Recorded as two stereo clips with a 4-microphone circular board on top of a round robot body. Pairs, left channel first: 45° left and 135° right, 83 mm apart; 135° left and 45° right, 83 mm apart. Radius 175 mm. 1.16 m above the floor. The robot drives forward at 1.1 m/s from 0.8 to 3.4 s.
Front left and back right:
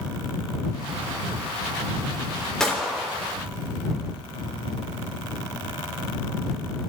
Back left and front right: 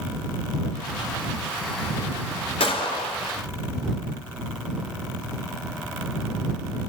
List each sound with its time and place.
2.6 s a gunshot: 130° left, 3 m; by 3.1 s 135° left, 3.5 m